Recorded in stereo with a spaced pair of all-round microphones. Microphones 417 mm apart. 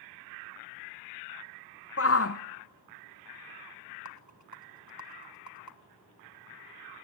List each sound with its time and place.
2.0 s a shout: 35° left (ahead or behind), 0.5 m
4.0 s a rattle: 40° left (ahead or behind), 1.5 m